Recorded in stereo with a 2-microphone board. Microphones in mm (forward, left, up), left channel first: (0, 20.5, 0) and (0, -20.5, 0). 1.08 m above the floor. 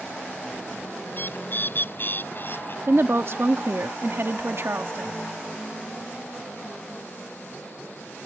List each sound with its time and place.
1.1 s a bird: 55° left (ahead or behind)
2.9 s a woman speaking: 70° right (ahead or behind)